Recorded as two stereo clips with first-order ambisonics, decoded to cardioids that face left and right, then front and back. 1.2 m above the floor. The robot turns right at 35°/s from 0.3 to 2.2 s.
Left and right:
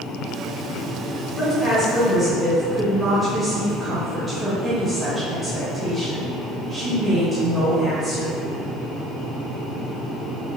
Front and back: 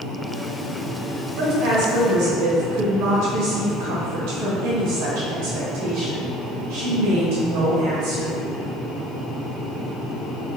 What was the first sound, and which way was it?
A woman speaking, 160° left.